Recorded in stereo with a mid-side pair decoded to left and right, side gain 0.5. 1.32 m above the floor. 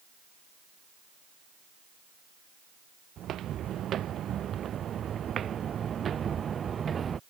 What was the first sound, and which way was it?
Footsteps, 60° right.